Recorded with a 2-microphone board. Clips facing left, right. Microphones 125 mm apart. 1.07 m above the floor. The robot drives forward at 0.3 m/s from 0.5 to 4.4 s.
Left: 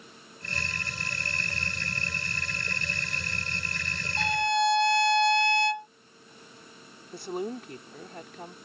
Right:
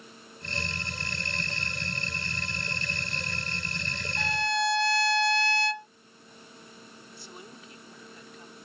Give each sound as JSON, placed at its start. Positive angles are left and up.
{"t": 4.2, "sound": "a violin", "side_deg": 20}
{"t": 7.1, "sound": "a woman speaking", "side_deg": 60}